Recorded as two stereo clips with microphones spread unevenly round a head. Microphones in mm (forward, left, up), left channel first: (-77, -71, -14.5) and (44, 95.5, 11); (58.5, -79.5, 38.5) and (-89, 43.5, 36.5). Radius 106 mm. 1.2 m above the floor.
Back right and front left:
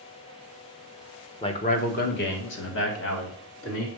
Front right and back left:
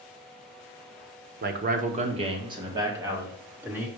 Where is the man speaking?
170° left, 1.0 m; by 3.9 s 140° right, 2.5 m.